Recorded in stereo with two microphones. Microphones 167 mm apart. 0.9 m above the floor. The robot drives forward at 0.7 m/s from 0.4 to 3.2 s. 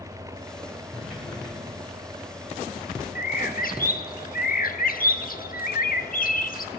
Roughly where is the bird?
Left.